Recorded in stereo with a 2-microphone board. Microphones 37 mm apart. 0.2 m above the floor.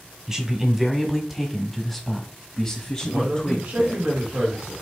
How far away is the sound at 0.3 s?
About 1.7 m.